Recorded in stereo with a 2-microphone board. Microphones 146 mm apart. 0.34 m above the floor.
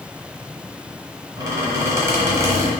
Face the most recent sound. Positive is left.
turn(degrees=-20)  # may be behind; listen again after turning